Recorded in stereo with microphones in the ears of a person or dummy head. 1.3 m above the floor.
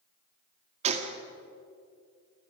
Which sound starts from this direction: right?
A gunshot, at 0.8 s.